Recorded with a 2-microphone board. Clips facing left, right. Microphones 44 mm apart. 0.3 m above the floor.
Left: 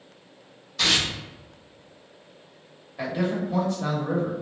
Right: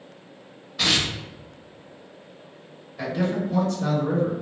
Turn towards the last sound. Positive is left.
turn(degrees=15)  # may be behind; listen again after turning